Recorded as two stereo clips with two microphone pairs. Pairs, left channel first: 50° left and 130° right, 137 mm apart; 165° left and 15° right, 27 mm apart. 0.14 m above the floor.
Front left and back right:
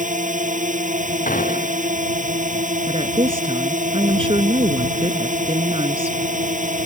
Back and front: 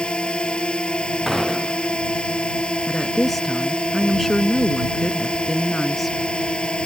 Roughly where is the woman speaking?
Right.